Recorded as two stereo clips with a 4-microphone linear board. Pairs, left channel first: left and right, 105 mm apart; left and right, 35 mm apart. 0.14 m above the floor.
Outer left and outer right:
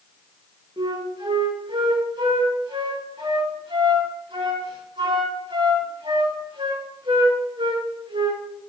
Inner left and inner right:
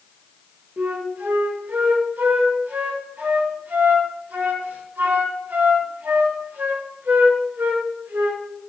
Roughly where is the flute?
Right.